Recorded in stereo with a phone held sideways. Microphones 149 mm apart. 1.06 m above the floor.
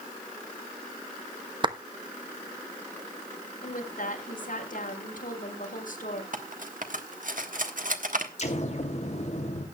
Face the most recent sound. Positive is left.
turn(degrees=50)  # may be behind; listen again after turning